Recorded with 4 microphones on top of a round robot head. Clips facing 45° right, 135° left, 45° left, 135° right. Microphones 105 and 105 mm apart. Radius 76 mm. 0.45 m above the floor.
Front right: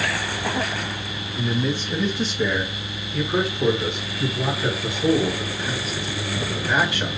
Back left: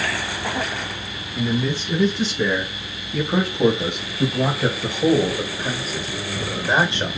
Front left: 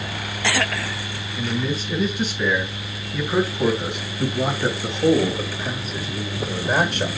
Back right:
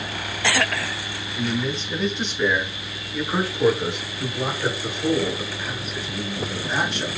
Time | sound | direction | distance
1.4 | a man speaking | 130° left | 5.5 m